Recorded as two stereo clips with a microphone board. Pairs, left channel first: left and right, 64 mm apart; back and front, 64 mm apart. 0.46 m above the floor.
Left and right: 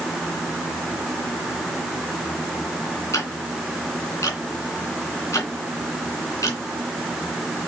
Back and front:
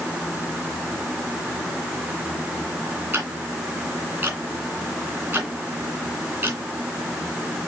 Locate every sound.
3.1 s ticking: 55° left, 2.5 m